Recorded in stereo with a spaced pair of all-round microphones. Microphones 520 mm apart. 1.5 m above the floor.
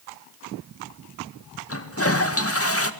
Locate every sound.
1.7 s a toilet flushing: 25° left (ahead or behind), 2.0 m